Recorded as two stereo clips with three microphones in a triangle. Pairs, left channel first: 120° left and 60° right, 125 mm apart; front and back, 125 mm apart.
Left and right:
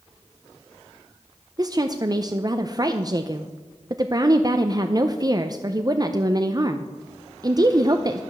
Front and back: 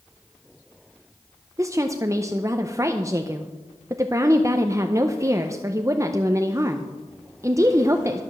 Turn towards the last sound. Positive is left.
turn(degrees=-120)